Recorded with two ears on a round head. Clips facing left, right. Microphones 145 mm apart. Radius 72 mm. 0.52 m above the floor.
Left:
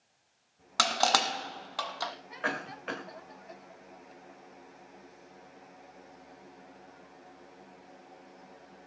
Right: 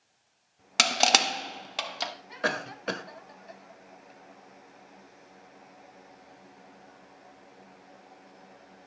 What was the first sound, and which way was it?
Crushing, 25° right (ahead or behind).